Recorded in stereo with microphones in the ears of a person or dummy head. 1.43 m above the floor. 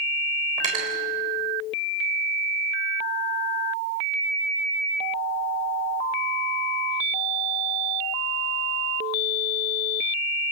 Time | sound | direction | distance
0.6 | cutlery clinking | 40° right (ahead or behind) | 3.5 m